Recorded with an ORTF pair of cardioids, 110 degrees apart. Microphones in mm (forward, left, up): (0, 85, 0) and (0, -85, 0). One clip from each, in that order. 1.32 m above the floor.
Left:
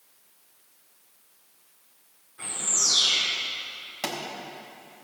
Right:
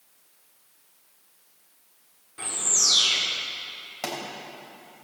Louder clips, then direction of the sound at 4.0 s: Even; 5° right.